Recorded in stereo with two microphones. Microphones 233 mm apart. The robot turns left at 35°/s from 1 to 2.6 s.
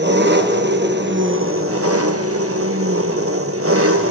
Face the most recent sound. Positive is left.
turn(degrees=-105)